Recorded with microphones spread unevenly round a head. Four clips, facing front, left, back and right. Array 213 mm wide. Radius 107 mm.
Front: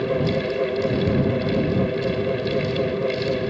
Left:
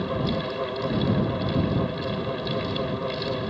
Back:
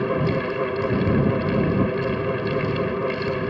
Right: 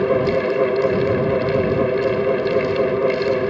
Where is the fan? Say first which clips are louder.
Right 10 dB, front 1 dB; 100° right.